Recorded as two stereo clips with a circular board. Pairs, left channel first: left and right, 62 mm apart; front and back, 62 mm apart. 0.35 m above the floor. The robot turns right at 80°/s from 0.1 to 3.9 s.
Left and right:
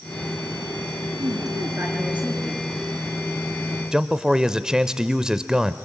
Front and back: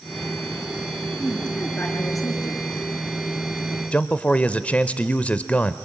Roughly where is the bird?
No bird in this recording.